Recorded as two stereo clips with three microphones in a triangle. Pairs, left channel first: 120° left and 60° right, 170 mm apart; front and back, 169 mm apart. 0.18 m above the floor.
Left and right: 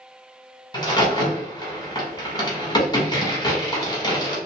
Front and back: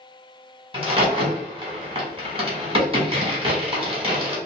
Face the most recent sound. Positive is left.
turn(degrees=165)